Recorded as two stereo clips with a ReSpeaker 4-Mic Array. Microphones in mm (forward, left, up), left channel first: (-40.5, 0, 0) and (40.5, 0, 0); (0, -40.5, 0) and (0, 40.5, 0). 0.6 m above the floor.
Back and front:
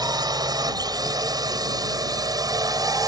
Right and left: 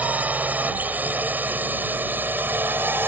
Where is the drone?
20° left; by 3.1 s 30° left.